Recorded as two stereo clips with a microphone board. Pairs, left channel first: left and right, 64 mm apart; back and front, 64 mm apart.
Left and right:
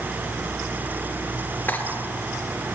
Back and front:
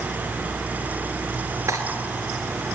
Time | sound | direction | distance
1.7 | cutlery clinking | 35° left | 1.9 m